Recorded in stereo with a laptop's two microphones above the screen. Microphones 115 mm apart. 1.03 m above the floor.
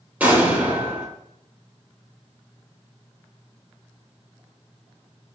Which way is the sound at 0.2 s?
15° right (ahead or behind).